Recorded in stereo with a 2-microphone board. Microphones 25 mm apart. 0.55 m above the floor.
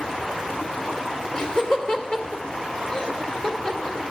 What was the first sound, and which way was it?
Laughter, 40° left (ahead or behind).